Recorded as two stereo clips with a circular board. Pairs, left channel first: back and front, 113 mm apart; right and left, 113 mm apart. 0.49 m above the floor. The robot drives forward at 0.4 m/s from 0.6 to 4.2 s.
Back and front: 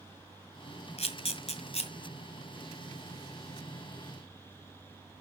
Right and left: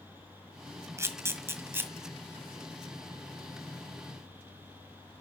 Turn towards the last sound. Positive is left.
turn(degrees=165)